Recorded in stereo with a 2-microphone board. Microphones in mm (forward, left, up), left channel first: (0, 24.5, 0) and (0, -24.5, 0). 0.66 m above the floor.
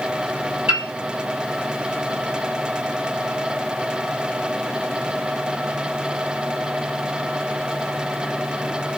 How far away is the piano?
About 1.8 m.